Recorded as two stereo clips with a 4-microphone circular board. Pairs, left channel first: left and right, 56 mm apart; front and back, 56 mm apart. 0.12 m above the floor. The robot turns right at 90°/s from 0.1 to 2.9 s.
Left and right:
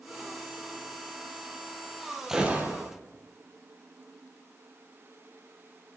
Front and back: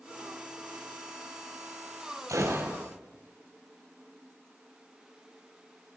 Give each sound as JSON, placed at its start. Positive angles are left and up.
{"t": 2.3, "sound": "a gunshot", "azimuth_deg": -175, "distance_m": 2.5}